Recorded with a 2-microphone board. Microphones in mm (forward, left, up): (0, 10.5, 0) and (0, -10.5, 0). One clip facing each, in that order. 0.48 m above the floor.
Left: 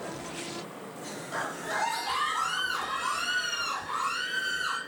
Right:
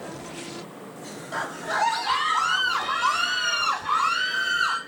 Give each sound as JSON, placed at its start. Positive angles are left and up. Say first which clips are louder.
{"t": 1.3, "sound": "a scream", "louder": "right 5 dB", "side_deg": -20, "distance_m": 1.9}